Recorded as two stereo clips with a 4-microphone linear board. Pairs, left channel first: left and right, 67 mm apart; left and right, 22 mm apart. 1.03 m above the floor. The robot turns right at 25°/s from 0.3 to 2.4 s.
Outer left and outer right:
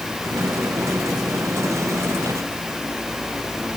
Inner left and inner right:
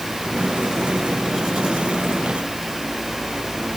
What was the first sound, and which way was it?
Only background noise.